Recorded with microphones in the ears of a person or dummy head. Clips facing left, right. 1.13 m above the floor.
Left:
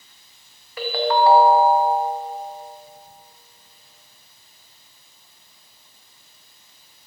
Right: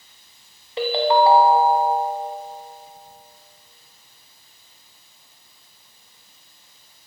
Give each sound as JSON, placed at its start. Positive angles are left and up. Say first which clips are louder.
{"t": 0.8, "sound": "a ringtone", "louder": "right 2 dB", "side_deg": -25, "distance_m": 0.7}